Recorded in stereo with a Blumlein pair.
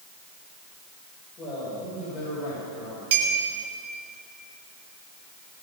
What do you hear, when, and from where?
1.4 s a man speaking: 15° left, 6 m; by 3.0 s 30° left, 6.5 m
3.1 s a clink: 50° right, 2 m